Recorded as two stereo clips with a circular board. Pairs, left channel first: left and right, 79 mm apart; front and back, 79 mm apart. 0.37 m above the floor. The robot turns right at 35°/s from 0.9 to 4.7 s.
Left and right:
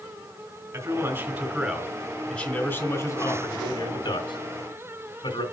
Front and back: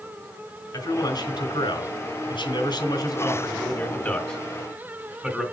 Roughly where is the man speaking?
Ahead right.